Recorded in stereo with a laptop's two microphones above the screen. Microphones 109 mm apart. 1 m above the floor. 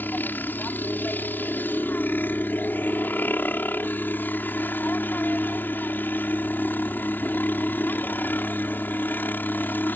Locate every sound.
0.0 s a helicopter: 20° left (ahead or behind)